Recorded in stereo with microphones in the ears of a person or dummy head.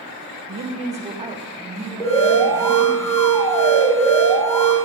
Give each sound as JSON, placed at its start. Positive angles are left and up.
{"t": 0.5, "sound": "a woman speaking", "side_deg": -50, "distance_m": 1.1}
{"t": 2.0, "sound": "an alarm", "side_deg": 15, "distance_m": 3.0}